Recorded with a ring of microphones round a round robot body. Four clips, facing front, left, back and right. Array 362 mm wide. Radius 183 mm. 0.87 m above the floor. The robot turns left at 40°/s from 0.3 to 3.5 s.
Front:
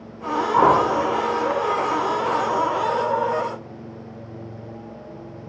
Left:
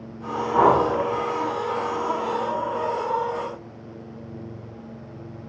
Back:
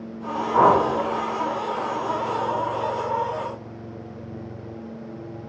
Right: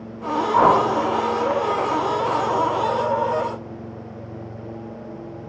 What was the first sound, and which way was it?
A whoosh, 145° left.